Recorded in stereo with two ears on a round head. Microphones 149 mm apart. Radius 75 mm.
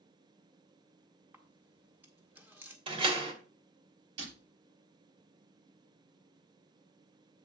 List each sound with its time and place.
1.3 s a camera shutter: 10° right (ahead or behind), 1.6 m
2.9 s a door slam: 35° right (ahead or behind), 1.7 m
4.2 s breaking glass: 80° right, 5.5 m